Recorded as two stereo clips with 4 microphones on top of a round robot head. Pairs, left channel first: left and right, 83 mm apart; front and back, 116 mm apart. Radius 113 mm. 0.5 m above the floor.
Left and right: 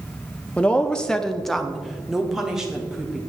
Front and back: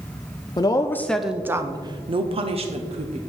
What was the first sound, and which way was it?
A woman speaking, 20° left.